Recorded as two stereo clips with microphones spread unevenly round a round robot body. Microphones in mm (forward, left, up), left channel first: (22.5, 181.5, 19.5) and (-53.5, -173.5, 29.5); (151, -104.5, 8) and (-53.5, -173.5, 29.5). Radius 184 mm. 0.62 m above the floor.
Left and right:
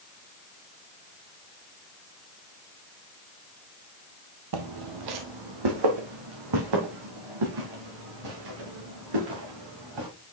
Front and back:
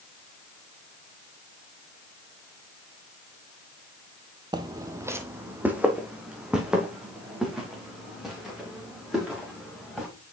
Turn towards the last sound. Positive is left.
turn(degrees=-70)